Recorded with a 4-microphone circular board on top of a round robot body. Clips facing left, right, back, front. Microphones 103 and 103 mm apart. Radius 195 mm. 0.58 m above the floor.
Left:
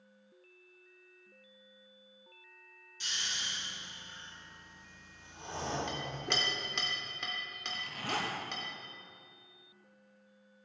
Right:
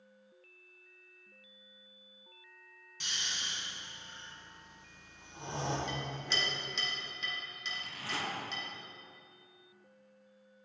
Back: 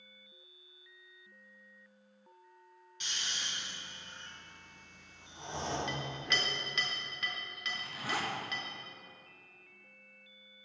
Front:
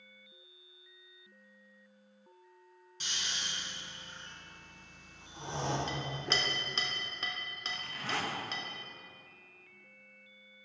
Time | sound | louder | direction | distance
3.0 | snoring | even, front 1 dB | 55° right | 1.9 m
5.9 | a clink | left 1 dB, front 1 dB | 55° left | 1.2 m
7.7 | a zipper | left 4 dB, back 1 dB | 100° left | 1.2 m